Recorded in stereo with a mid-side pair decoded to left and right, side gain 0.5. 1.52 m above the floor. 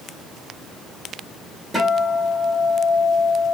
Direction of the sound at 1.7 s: 5° right.